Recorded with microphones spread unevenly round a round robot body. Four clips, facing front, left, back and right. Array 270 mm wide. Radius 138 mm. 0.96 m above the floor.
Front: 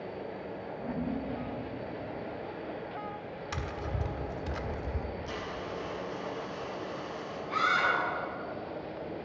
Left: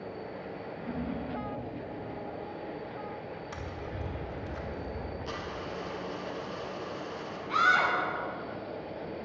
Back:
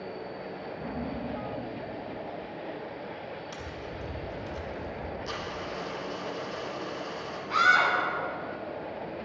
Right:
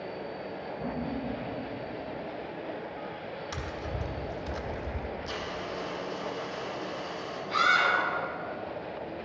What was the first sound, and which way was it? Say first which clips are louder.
Laughter: right 2 dB, front 1 dB; 125° right.